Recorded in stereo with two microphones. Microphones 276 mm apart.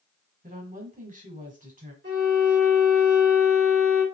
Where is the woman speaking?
25° right (ahead or behind), 1.2 m.